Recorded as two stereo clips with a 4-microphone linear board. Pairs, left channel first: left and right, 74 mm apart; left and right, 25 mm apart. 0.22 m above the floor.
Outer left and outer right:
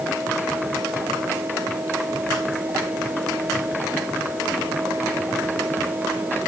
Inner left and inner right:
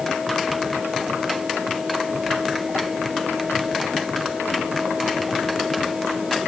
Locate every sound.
Only background noise.